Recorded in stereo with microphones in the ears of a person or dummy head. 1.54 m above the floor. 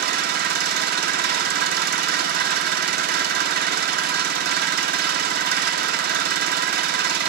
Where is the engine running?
60° right (ahead or behind), 0.8 m.